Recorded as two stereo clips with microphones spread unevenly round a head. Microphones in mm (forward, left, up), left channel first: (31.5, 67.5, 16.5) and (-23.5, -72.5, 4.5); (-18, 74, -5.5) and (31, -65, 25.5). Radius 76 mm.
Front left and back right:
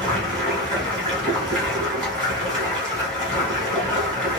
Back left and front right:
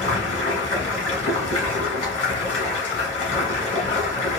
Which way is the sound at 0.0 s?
150° left.